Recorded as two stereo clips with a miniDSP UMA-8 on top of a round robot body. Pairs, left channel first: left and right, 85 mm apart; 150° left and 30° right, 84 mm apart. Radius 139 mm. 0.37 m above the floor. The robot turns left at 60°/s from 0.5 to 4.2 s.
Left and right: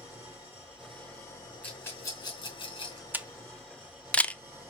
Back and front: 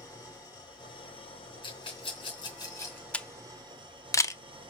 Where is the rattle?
165° left, 3.5 m; by 3.0 s 80° left, 3.5 m.